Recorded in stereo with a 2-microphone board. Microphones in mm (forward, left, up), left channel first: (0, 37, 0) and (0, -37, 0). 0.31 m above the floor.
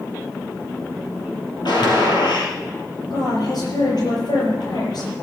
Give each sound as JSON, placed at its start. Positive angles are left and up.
{"t": 1.6, "sound": "a gunshot", "side_deg": 75, "distance_m": 3.5}
{"t": 3.1, "sound": "a woman speaking", "side_deg": 70, "distance_m": 7.5}